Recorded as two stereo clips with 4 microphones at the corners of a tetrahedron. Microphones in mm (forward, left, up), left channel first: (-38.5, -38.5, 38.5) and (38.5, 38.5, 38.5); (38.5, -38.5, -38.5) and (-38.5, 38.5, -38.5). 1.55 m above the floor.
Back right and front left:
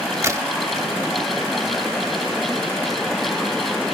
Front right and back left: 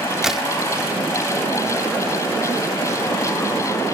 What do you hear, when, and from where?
0.2 s a crack: 55° left